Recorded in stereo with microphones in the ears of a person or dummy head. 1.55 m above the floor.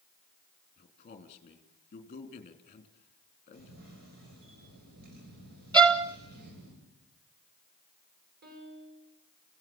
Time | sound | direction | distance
0.8 | a man speaking | 35° left (ahead or behind) | 3 m
3.5 | a camera shutter | 55° right (ahead or behind) | 9 m
5.7 | a violin | 20° right (ahead or behind) | 1.7 m
8.4 | a piano | 55° right (ahead or behind) | 7 m